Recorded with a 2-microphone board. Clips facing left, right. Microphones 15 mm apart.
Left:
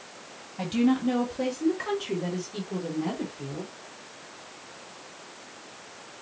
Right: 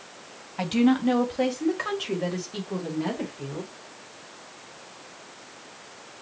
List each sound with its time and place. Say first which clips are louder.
0.6 s a woman speaking: right 3 dB; 75° right (ahead or behind), 1.5 m; by 3.7 s 60° right (ahead or behind), 2.5 m